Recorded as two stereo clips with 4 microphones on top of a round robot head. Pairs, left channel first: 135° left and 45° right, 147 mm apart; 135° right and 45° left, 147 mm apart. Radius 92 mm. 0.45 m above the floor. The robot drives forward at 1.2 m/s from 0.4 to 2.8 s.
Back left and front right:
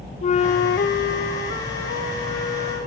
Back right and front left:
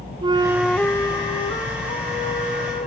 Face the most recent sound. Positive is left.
turn(degrees=170)